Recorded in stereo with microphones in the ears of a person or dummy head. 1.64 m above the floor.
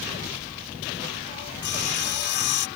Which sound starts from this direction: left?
Sawing, at 1.6 s.